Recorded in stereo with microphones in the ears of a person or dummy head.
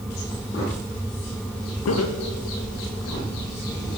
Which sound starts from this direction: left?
Laughter, at 1.9 s.